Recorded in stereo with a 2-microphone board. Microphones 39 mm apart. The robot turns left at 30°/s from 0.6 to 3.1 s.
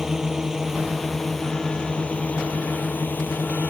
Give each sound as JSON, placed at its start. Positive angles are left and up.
{"t": 0.0, "sound": "a drone", "azimuth_deg": -165}